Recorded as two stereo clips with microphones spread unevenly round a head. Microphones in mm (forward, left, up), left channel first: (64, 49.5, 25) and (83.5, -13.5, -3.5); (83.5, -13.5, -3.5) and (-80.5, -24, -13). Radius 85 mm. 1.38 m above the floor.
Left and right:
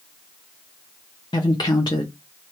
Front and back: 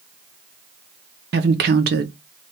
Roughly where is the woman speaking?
Behind.